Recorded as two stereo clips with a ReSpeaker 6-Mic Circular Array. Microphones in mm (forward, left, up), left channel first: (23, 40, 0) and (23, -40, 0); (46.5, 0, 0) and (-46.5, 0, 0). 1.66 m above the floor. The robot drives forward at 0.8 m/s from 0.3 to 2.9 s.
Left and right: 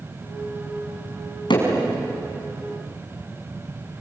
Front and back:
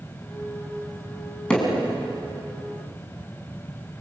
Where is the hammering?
80° left, 6 m.